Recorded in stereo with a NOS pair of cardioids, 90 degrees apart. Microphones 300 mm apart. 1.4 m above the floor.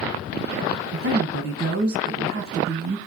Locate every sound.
0.9 s a woman speaking: 50° right, 1.2 m